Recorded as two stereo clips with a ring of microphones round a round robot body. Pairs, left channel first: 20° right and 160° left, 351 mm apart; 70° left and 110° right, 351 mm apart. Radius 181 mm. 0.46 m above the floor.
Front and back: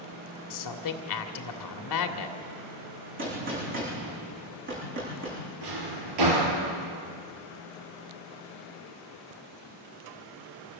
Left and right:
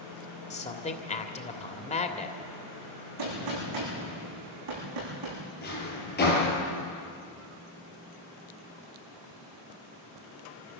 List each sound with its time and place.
0.5 s a man speaking: straight ahead, 1.7 m
3.2 s a gunshot: 145° right, 10 m
5.6 s a drawer: 130° left, 5.5 m